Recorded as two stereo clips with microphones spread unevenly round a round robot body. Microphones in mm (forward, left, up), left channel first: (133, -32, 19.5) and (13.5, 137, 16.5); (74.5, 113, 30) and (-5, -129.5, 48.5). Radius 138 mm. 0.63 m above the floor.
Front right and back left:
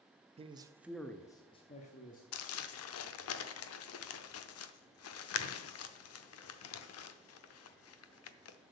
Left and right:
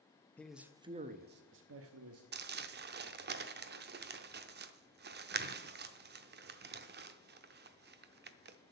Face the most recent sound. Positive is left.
turn(degrees=-55)